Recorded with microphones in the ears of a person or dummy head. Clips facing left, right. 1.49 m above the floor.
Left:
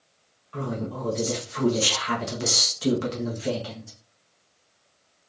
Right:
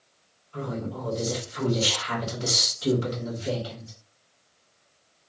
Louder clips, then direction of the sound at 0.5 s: Left 2 dB; 70° left (ahead or behind).